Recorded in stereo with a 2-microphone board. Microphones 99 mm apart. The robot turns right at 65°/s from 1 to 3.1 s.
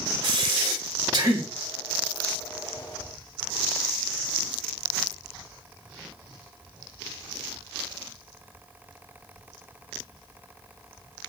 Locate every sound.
0.2 s breathing: 55° right, 1.5 m; by 1.5 s 25° right, 1.5 m